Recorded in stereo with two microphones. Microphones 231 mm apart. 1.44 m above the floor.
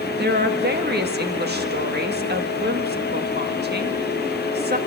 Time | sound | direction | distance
0.2 | a woman speaking | 45° right (ahead or behind) | 1.8 m